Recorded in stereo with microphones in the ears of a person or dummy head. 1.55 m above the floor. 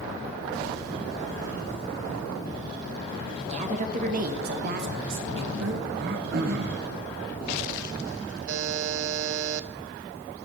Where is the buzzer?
75° right (ahead or behind), 0.5 m.